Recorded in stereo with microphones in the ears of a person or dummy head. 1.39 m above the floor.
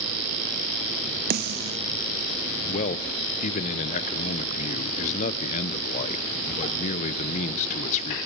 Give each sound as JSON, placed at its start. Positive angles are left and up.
{"t": 1.3, "sound": "a snare drum", "side_deg": -50, "distance_m": 0.8}
{"t": 2.7, "sound": "a man speaking", "side_deg": 40, "distance_m": 0.9}